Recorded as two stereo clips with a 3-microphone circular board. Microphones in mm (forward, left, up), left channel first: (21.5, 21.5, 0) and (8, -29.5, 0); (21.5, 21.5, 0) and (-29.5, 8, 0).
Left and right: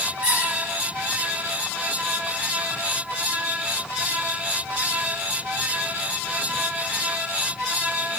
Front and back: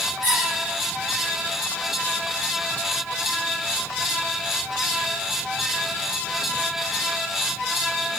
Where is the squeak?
30° right, 3 m.